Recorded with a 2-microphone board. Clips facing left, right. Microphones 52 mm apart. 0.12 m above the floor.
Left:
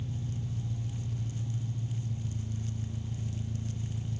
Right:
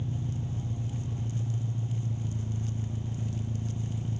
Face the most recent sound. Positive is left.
turn(degrees=-30)  # may be behind; listen again after turning